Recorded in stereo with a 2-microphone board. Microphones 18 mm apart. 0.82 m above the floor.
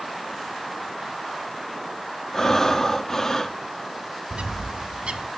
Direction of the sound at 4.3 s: 65° right (ahead or behind).